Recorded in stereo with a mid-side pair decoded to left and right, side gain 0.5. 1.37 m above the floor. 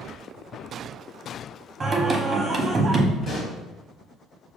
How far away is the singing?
About 0.7 m.